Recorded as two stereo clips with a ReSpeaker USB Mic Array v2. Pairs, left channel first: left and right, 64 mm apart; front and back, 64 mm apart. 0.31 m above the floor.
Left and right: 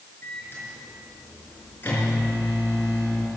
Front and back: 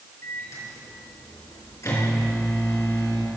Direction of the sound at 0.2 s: 35° left.